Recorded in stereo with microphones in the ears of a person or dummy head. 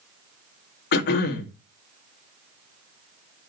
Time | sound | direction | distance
0.9 | throat clearing | 65° left (ahead or behind) | 1.6 m